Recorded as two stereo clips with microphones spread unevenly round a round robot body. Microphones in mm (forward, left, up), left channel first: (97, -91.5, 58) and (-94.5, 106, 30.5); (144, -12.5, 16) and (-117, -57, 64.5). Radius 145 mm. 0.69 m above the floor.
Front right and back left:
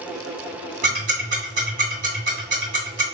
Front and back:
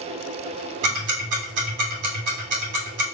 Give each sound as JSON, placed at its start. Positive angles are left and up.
{"t": 0.8, "sound": "ticking", "azimuth_deg": -170, "distance_m": 2.5}